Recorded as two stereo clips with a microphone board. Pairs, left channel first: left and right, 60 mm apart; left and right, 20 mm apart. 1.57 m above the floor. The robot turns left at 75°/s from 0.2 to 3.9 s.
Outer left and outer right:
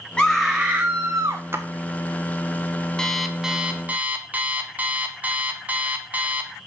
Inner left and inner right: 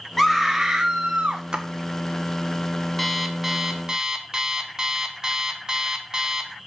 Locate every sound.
0.2 s a scream: 10° left, 0.6 m; by 1.4 s 80° right, 0.6 m
1.5 s a splash: 45° right (ahead or behind), 0.9 m; by 1.6 s 35° right (ahead or behind), 0.9 m
3.0 s an alarm clock: 20° left, 0.7 m; by 6.6 s 50° right, 0.7 m